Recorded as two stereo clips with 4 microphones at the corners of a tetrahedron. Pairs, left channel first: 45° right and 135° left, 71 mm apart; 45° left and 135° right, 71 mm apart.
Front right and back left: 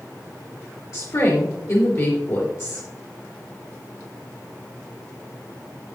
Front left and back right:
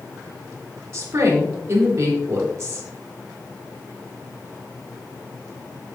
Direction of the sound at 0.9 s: 85° right.